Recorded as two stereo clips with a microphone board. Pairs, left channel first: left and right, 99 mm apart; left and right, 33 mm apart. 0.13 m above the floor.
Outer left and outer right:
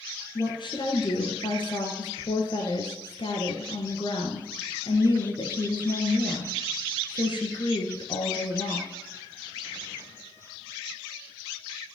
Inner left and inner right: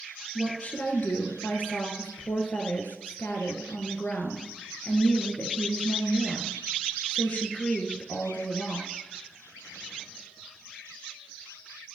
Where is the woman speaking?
55° left (ahead or behind), 1.9 m.